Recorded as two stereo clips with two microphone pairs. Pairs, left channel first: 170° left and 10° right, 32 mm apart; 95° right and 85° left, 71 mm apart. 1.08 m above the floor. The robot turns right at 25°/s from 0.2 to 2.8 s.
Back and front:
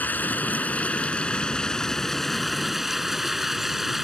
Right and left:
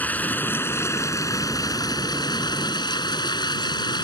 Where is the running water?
160° right; by 4.0 s 95° right.